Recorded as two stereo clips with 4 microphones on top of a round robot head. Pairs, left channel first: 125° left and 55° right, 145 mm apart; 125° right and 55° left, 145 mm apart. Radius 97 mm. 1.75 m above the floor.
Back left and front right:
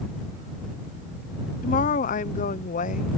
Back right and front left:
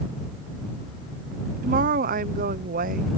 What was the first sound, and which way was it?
A woman speaking, 85° left.